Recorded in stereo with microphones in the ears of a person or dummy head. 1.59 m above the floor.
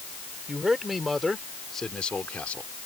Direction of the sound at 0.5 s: 10° right (ahead or behind).